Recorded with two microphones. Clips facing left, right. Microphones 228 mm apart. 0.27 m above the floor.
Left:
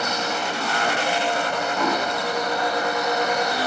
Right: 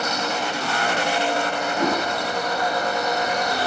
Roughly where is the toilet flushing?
Right.